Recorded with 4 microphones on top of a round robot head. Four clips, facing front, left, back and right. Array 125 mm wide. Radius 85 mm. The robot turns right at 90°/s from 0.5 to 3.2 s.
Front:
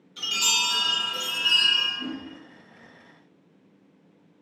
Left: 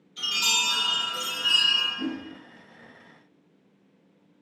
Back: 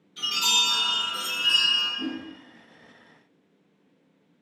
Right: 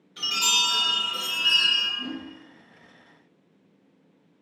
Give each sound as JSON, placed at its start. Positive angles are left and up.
{"t": 0.2, "sound": "a chime", "azimuth_deg": -75, "distance_m": 1.2}
{"t": 2.0, "sound": "a whoosh", "azimuth_deg": 110, "distance_m": 0.5}